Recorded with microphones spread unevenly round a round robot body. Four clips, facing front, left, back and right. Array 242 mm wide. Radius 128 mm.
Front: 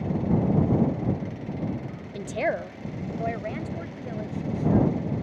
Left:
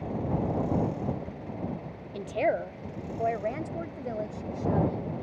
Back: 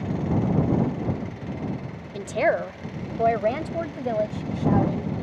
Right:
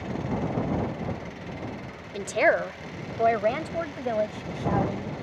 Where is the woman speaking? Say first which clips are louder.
Right 5 dB, back 5 dB; 100° right; by 5.2 s 150° right.